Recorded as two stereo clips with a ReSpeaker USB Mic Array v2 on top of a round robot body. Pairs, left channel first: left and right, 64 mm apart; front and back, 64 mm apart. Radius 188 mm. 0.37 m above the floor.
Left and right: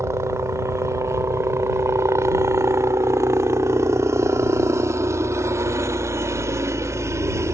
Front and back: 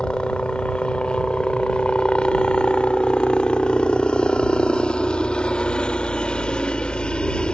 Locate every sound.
0.0 s a helicopter: 70° right